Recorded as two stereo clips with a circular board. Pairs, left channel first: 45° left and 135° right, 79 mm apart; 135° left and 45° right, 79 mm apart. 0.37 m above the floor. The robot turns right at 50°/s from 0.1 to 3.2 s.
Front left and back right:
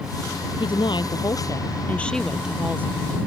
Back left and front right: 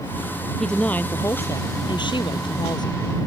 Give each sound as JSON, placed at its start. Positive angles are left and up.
{"t": 0.6, "sound": "a woman speaking", "azimuth_deg": 50}